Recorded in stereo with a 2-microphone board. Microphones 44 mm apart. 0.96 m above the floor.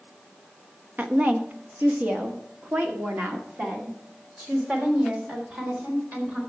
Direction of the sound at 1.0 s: 45° right (ahead or behind).